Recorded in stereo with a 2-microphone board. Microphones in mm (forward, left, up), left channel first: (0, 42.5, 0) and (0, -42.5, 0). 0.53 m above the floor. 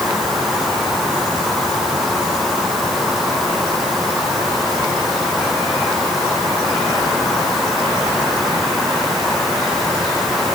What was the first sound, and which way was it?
Only background noise.